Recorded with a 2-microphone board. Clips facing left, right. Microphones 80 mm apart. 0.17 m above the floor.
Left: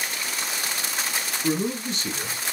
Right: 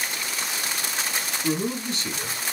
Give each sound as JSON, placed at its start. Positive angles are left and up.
{"t": 1.4, "sound": "a man speaking", "side_deg": 20, "distance_m": 2.5}